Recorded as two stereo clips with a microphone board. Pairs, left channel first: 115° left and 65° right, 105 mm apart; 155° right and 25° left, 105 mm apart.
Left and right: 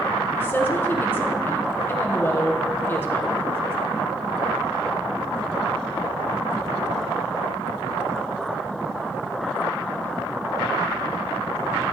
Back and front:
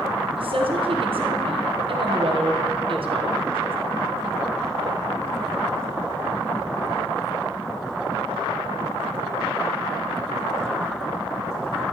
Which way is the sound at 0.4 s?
45° left.